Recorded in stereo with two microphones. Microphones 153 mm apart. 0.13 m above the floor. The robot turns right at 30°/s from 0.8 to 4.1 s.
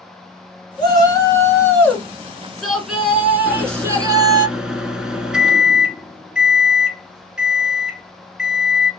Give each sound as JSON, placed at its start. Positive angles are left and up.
{"t": 0.8, "sound": "a shout", "azimuth_deg": 125, "distance_m": 1.7}
{"t": 3.5, "sound": "a microwave", "side_deg": 5, "distance_m": 1.1}